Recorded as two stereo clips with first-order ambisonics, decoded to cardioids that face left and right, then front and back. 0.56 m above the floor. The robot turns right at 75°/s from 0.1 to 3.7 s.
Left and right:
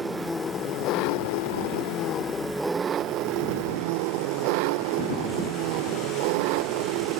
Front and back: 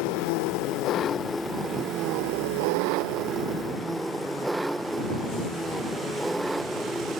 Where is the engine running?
10° right; by 7.2 s 100° right.